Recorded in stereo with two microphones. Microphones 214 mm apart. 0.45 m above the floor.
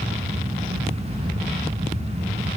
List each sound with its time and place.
Only background noise.